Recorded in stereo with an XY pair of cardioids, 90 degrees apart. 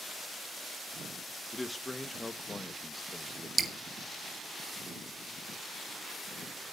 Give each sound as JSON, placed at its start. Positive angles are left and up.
{"t": 1.5, "sound": "a man speaking", "azimuth_deg": 20, "distance_m": 1.9}
{"t": 3.6, "sound": "dripping", "azimuth_deg": -35, "distance_m": 2.0}